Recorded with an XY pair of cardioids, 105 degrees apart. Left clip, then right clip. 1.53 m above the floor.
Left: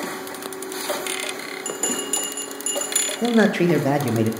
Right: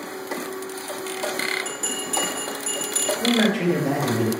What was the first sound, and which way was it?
A bell, 40° left.